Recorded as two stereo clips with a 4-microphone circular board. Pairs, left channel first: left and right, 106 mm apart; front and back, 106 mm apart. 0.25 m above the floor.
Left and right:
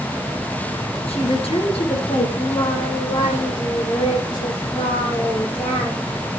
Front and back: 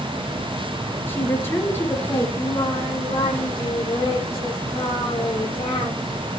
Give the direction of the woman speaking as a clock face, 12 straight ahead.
10 o'clock.